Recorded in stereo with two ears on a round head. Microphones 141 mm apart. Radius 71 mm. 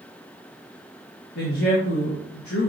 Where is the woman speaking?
70° left (ahead or behind), 1.5 m.